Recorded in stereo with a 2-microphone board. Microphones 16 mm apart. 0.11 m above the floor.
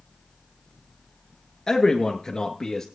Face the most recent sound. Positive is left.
turn(degrees=30)  # may be behind; listen again after turning